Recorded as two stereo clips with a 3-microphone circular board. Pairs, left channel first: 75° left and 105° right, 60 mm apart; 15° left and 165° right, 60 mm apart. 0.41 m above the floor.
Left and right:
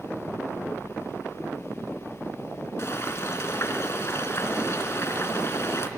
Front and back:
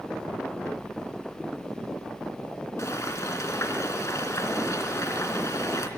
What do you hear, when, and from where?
2.8 s frying: 40° left, 3 m